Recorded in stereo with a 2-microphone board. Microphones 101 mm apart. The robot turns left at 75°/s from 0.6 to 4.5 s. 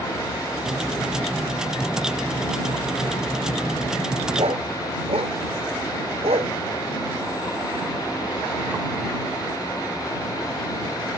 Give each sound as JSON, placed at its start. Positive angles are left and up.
{"t": 4.4, "sound": "a dog barking", "side_deg": -65}